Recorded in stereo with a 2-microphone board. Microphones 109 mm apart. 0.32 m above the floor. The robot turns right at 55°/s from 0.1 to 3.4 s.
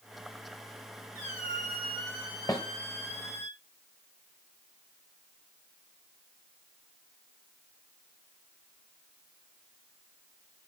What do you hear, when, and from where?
1.1 s a squeak: 30° right, 2.5 m; by 3.5 s 95° left, 2.5 m
2.5 s a snare drum: 30° left (ahead or behind), 1.2 m; by 2.6 s 25° left (ahead or behind), 1.2 m